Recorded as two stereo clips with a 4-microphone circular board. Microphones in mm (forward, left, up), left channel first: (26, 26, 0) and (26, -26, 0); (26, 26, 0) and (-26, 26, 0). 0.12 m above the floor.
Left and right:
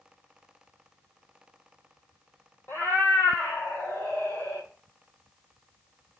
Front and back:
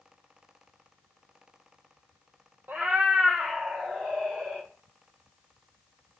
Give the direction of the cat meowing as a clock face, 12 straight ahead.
8 o'clock.